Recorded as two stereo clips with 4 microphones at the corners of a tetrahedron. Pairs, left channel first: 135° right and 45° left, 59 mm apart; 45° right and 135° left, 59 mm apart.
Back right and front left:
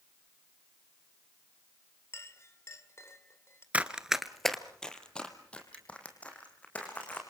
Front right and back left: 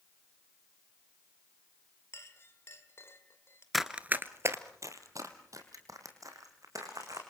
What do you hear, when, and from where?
2.1 s a clink: 95° right, 2.0 m
3.7 s running footsteps: 40° left, 1.0 m; by 7.2 s 160° left, 5.5 m